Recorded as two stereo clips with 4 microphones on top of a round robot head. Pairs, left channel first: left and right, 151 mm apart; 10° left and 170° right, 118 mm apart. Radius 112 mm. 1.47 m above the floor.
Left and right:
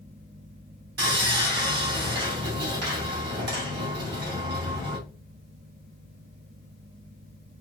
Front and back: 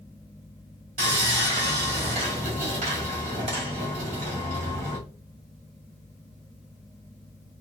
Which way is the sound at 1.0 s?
120° right.